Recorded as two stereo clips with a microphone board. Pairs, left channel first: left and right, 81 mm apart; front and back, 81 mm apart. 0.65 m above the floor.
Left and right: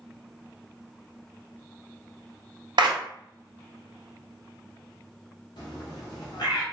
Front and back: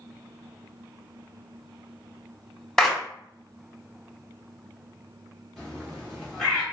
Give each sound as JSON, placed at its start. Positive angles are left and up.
{"t": 2.8, "sound": "a clap", "azimuth_deg": -80, "distance_m": 0.7}
{"t": 5.6, "sound": "a bird", "azimuth_deg": 90, "distance_m": 1.0}